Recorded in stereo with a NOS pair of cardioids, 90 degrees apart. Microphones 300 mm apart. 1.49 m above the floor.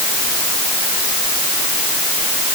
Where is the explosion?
No explosion in this recording.